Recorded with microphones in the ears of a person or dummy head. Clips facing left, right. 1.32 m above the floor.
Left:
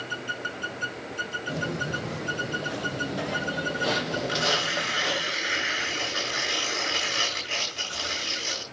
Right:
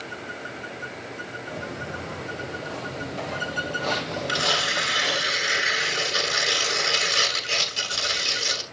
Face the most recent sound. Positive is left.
turn(degrees=-60)  # may be behind; listen again after turning